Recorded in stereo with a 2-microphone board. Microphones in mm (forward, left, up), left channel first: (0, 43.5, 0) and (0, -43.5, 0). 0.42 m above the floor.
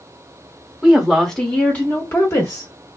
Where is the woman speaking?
5° right (ahead or behind), 1.2 m; by 3.0 s 45° left (ahead or behind), 1.6 m.